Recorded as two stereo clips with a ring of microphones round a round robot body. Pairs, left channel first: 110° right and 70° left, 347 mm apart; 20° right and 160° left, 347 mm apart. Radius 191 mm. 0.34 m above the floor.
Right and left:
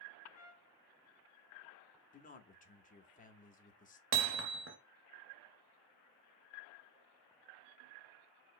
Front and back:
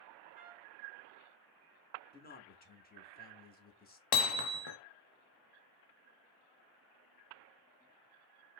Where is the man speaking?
65° right, 0.9 m.